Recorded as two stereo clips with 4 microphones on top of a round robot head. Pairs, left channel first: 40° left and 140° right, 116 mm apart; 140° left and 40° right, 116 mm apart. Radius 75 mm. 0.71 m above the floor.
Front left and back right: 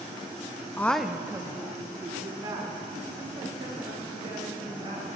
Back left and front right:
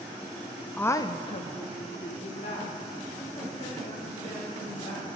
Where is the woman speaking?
75° left, 0.5 m; by 5.1 s 170° left, 4.5 m.